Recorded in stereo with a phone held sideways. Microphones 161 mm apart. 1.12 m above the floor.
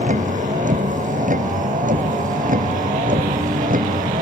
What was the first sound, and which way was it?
A vehicle, 50° right (ahead or behind).